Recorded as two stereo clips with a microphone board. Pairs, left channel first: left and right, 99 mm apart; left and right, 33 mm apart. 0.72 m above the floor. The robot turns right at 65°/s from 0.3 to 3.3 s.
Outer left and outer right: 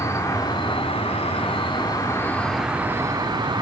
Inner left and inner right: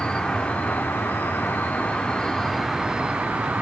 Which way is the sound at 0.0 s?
35° left.